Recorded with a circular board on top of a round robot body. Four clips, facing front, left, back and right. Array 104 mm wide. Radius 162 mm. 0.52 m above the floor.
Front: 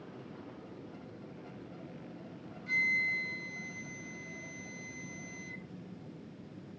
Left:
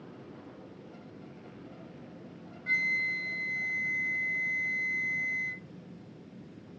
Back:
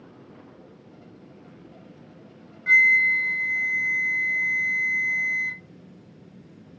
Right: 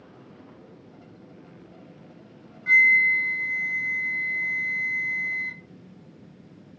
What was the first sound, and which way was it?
A flute, 155° right.